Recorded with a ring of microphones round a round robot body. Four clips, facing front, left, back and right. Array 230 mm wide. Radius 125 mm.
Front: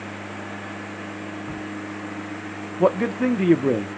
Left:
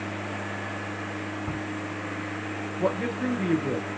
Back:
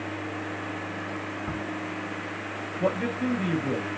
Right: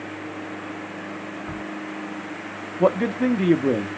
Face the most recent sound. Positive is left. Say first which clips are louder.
# right 8 dB, front 7 dB
turn(degrees=-40)